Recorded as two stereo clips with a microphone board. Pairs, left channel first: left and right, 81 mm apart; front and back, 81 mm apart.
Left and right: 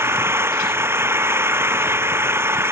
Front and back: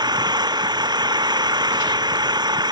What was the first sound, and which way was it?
An engine running, 150° right.